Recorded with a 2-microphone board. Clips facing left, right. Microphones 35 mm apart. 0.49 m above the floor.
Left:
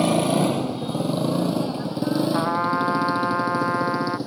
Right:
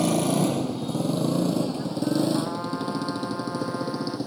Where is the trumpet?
65° left (ahead or behind).